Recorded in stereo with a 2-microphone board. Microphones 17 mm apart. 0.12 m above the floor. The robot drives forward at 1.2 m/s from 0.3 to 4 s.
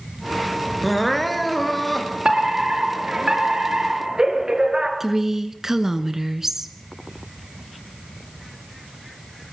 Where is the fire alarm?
45° right (ahead or behind), 3.5 m; by 4.9 s 50° right (ahead or behind), 3.5 m.